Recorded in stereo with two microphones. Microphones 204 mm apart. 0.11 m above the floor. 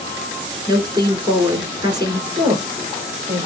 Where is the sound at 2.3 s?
20° right (ahead or behind), 2 m.